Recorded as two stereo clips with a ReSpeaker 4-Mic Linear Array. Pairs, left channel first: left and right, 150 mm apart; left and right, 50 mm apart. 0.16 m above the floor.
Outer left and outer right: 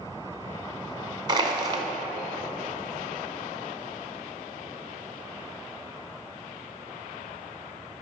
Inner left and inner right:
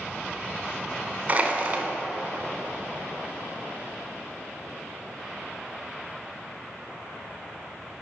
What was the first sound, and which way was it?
Crushing, 30° right (ahead or behind).